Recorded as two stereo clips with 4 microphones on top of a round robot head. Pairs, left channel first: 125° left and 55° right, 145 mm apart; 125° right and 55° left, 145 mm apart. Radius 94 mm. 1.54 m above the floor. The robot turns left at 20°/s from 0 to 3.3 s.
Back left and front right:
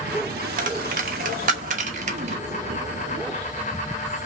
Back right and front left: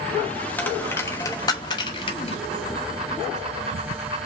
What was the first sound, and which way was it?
A dropped coin, 50° right.